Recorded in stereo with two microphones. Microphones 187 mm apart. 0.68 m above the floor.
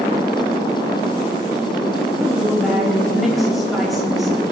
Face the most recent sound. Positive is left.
turn(degrees=0)  # may be behind; listen again after turning